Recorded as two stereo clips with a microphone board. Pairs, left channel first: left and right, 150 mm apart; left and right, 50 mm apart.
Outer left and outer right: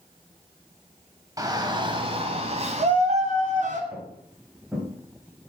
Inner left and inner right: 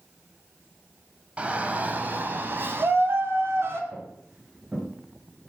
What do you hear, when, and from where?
1.4 s a shout: 25° right (ahead or behind), 1.3 m; by 3.8 s 55° right (ahead or behind), 2 m
3.9 s footsteps: 5° right (ahead or behind), 4.5 m